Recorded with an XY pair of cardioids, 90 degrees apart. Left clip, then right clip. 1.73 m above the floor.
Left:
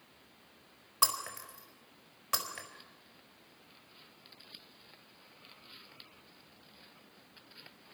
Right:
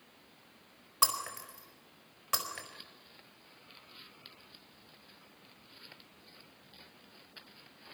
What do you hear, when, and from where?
1.0 s breaking glass: 10° right, 4 m